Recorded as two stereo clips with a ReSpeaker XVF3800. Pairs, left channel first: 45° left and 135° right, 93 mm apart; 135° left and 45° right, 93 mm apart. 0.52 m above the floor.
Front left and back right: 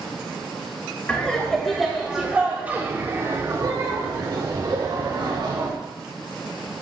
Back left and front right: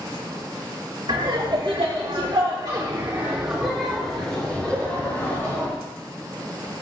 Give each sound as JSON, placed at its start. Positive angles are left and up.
{"t": 1.1, "sound": "laughter", "azimuth_deg": -25, "distance_m": 2.5}